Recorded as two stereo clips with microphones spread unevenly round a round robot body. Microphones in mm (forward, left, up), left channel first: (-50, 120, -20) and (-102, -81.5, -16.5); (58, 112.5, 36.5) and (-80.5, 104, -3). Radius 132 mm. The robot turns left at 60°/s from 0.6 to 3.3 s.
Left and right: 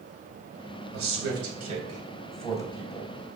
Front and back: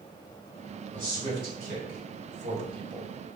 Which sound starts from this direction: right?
A man speaking, at 0.9 s.